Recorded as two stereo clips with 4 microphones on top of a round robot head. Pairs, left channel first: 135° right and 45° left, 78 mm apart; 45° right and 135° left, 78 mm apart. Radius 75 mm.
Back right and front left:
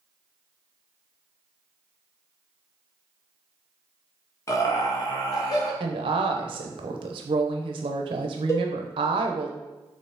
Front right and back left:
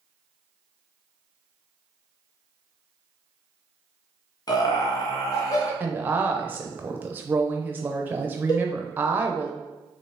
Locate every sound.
4.5 s laughter: 85° right, 1.1 m; by 5.7 s 95° right, 1.8 m
5.8 s a woman speaking: 65° left, 0.5 m
8.5 s a cowbell: 80° right, 1.1 m